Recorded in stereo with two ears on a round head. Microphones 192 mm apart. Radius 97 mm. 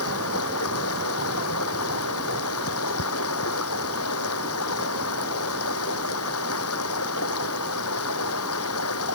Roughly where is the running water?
Left.